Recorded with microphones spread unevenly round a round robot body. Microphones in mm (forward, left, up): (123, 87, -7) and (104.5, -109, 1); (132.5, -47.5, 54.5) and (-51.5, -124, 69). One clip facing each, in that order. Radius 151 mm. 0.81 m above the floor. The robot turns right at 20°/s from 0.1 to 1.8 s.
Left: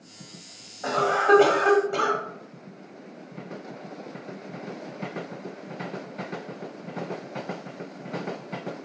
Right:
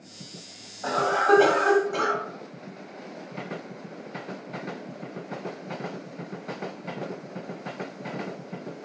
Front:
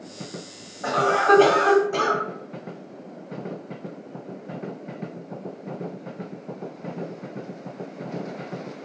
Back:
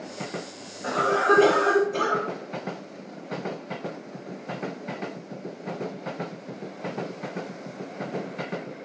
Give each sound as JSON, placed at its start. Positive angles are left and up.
{"t": 0.8, "sound": "a cough", "azimuth_deg": 20, "distance_m": 1.6}